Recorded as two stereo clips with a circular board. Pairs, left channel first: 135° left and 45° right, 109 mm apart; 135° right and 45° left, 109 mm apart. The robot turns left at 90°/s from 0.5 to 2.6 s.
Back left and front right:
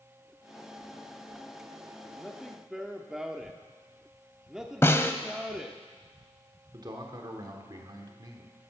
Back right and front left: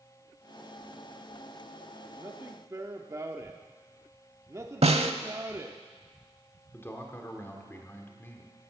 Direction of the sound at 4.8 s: 65° left.